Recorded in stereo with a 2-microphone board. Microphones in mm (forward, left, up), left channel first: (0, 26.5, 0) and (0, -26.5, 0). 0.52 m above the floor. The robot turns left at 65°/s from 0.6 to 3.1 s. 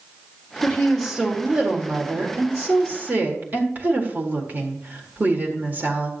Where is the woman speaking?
30° left, 1.8 m; by 6.1 s 135° right, 1.8 m.